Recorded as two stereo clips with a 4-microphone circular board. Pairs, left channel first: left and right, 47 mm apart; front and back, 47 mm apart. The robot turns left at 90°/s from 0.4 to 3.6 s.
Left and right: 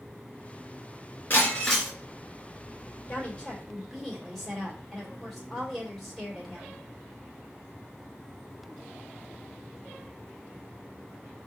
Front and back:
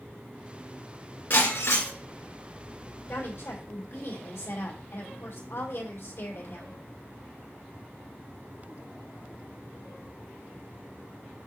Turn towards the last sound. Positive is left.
turn(degrees=0)